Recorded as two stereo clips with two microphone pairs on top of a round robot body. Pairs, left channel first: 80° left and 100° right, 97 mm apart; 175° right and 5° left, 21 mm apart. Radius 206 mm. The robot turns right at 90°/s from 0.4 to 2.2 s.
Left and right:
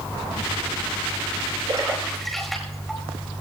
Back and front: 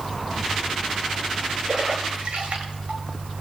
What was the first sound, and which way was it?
A splash, 55° right.